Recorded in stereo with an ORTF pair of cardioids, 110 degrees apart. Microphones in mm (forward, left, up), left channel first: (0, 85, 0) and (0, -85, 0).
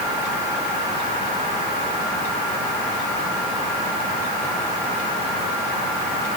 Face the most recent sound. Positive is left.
No sound to turn to.